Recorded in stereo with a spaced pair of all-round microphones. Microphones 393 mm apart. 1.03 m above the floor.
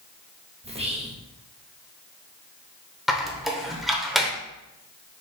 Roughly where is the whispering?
Centre.